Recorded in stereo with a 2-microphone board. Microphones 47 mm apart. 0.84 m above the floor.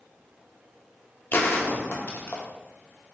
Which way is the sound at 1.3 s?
50° left (ahead or behind).